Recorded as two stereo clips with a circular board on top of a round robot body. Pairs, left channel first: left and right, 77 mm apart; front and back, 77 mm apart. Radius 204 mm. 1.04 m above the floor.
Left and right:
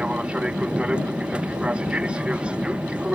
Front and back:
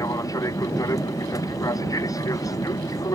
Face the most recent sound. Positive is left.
turn(degrees=-15)